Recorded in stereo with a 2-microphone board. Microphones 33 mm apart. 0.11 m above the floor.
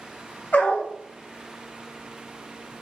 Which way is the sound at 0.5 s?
70° left (ahead or behind).